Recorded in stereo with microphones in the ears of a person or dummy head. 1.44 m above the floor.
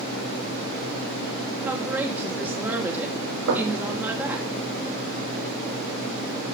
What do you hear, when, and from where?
1.6 s a woman speaking: 10° right (ahead or behind), 3 m
3.5 s knocking: 90° right, 5.5 m